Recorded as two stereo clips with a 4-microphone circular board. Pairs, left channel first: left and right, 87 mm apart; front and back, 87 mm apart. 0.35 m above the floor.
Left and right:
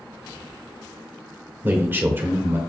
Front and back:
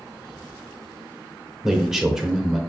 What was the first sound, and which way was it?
A man speaking, 105° right.